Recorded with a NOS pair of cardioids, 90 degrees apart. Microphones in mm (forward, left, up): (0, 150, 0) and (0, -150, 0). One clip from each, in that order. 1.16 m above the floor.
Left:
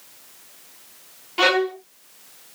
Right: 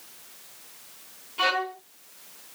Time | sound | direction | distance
1.4 | a violin | 65° left | 0.8 m